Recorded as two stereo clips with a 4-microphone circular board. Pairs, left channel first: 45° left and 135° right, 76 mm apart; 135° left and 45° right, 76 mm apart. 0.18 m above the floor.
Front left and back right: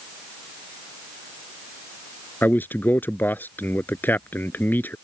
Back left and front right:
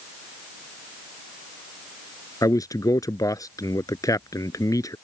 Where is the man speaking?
105° left.